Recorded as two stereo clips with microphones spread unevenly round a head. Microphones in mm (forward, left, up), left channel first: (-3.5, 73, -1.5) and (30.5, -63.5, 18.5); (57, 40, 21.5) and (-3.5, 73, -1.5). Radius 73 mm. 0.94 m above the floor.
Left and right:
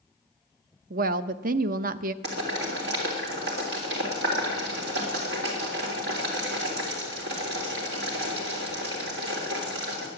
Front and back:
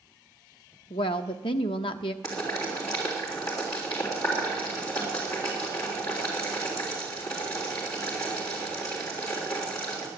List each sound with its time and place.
0.9 s a woman speaking: 50° right, 0.6 m
2.2 s boiling: 100° right, 3.5 m